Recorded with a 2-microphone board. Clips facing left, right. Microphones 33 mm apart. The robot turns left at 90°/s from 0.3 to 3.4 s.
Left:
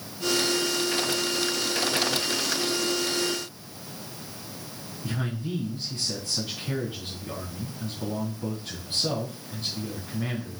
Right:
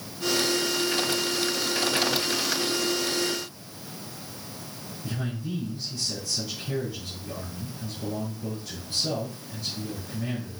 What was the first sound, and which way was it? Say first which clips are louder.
A man speaking: left 1 dB; 50° left (ahead or behind).